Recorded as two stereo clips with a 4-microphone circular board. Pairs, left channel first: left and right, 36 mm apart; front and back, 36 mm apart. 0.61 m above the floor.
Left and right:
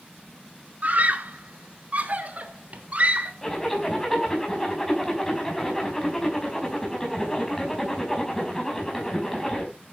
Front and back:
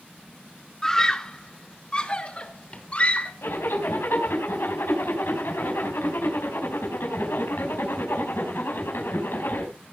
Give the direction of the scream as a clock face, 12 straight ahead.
3 o'clock.